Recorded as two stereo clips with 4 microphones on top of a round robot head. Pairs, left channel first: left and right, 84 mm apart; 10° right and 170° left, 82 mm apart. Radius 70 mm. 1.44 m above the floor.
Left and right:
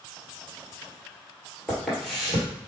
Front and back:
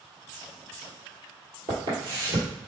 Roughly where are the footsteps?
Behind.